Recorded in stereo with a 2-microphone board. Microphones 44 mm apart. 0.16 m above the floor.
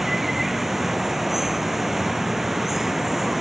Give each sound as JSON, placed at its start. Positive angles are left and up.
{"t": 0.0, "sound": "running water", "side_deg": -5}